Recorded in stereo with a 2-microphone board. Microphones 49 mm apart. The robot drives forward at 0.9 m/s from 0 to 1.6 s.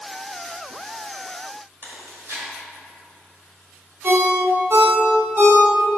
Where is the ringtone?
50° right (ahead or behind), 1.2 m.